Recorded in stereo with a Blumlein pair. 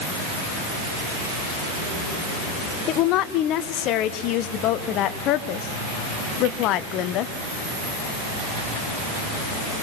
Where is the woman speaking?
35° left, 1.4 m.